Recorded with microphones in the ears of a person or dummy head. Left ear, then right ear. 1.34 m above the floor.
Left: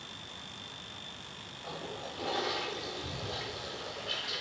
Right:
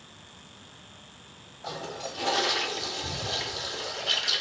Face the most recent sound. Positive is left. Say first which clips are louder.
# right 6 dB
turn(degrees=-35)  # may be behind; listen again after turning